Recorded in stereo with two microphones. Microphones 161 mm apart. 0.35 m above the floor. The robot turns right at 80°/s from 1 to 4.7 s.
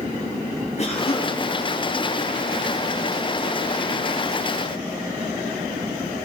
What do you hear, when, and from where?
0.8 s a cough: 45° left (ahead or behind), 2.5 m; by 1.4 s 20° left (ahead or behind), 2.5 m